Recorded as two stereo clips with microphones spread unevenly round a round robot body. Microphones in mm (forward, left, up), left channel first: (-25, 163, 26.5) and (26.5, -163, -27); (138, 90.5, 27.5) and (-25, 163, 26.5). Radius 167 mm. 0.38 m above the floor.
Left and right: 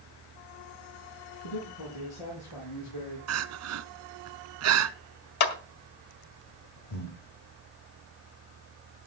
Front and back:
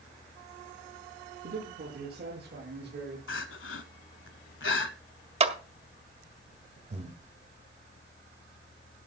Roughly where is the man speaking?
Behind left.